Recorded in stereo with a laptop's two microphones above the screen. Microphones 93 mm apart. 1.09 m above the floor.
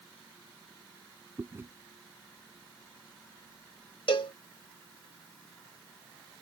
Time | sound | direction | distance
1.4 | chewing | 25° right (ahead or behind) | ?
4.1 | a cowbell | 65° left (ahead or behind) | ?